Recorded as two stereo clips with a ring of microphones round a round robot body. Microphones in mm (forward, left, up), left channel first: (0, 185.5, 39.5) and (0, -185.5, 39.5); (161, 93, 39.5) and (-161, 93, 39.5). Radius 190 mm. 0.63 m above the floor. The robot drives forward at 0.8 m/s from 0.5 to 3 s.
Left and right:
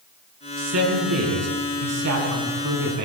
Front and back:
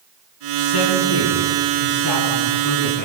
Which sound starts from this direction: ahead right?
A man speaking, at 0.6 s.